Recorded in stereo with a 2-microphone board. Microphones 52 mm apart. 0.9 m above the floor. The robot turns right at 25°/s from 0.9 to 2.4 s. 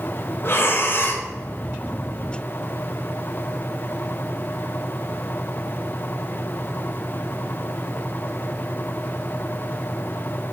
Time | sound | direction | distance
0.4 | breathing | 50° left (ahead or behind) | 0.9 m